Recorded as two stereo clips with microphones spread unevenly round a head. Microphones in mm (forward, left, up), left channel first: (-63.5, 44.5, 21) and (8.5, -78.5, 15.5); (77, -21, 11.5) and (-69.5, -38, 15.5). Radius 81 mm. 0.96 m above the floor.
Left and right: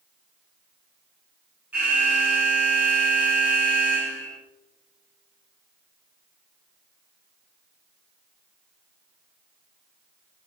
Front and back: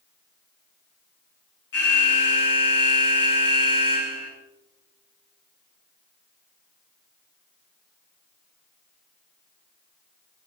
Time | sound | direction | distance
1.7 | an alarm | 20° left | 7 m